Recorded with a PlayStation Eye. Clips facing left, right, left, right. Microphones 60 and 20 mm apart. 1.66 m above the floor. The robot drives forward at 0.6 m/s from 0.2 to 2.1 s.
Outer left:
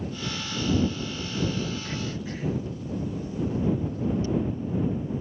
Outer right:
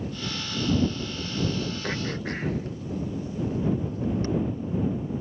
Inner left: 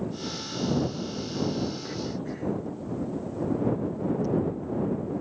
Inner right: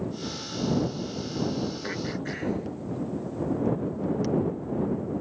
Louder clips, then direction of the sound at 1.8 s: Outer right 3 dB, inner right 1 dB; 50° right (ahead or behind).